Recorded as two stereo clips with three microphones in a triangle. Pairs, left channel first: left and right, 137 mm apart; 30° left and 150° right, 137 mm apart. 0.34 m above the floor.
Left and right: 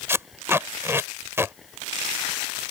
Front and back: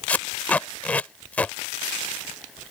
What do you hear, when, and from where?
0.1 s tape being pulled: 40° right